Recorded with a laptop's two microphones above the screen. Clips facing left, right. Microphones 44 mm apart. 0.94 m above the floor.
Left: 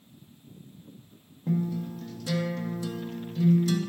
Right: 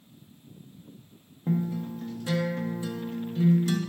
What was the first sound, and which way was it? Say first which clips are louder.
A guitar: even; 25° right (ahead or behind).